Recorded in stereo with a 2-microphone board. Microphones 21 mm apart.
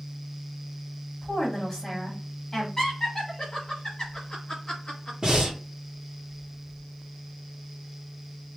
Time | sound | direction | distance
1.2 | a woman speaking | 15° left (ahead or behind) | 1.9 m
2.8 | laughter | 30° left (ahead or behind) | 1.4 m
5.2 | breathing | 35° right (ahead or behind) | 1.9 m